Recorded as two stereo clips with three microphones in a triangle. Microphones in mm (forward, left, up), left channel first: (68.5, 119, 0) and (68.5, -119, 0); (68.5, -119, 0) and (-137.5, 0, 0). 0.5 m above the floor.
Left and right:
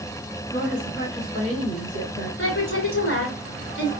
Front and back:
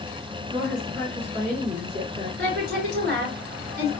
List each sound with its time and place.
0.5 s a woman speaking: 120° left, 2 m
2.4 s a woman speaking: 110° left, 3.5 m